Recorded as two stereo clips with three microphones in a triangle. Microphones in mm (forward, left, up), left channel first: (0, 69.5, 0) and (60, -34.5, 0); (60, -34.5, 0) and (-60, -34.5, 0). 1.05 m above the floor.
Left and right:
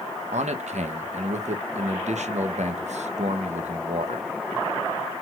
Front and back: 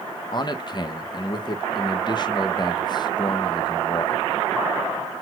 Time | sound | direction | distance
0.3 | a man speaking | 50° right | 0.7 m